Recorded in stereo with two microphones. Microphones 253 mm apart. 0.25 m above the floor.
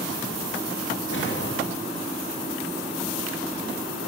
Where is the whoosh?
55° left (ahead or behind), 7 m.